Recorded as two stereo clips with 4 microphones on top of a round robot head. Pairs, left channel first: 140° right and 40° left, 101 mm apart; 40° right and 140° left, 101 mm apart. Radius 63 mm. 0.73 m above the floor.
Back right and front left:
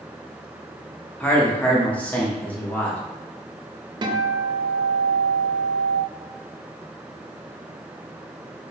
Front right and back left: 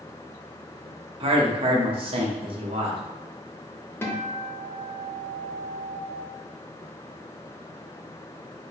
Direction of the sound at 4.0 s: 20° left.